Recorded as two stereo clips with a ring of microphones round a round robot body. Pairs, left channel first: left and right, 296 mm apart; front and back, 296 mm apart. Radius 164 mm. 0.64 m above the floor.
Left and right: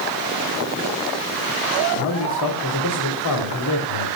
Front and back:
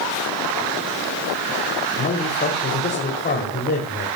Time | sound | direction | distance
2.0 | a man speaking | 60° left | 3 m